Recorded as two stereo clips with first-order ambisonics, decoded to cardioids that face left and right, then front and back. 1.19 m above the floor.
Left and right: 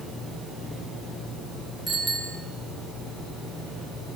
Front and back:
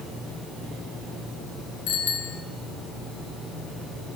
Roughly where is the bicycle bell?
Ahead.